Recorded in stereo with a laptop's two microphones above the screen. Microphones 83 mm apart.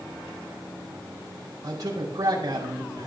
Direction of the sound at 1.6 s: 50° right (ahead or behind).